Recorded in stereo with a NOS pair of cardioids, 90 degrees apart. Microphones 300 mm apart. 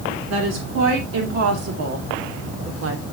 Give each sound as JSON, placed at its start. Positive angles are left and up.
{"t": 0.3, "sound": "a woman speaking", "azimuth_deg": -55, "distance_m": 3.5}